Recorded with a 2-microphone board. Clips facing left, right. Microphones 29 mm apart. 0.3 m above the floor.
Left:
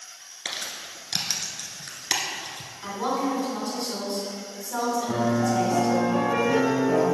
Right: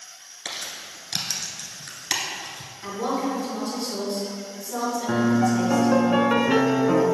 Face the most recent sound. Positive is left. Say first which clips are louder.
# right 6 dB
turn(degrees=-65)  # may be behind; listen again after turning